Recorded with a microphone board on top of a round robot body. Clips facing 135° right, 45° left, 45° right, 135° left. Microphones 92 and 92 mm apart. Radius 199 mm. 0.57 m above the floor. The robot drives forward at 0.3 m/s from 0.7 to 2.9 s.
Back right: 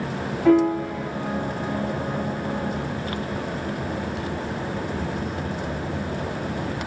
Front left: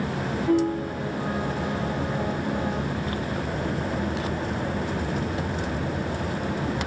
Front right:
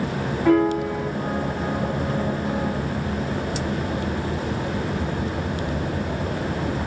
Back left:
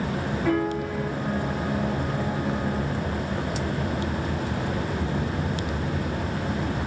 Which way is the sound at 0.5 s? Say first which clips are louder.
Back right 6 dB, front right 8 dB; 115° right.